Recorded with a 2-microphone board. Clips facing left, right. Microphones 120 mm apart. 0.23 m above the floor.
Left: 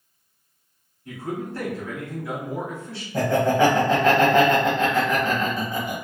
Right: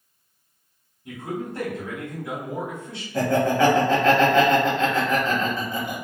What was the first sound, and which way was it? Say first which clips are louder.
A man speaking: even; 20° right (ahead or behind).